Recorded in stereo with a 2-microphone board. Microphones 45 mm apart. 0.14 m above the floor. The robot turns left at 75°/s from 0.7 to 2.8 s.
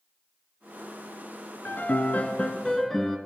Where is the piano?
95° left, 1.1 m; by 3.2 s 10° left, 1.1 m.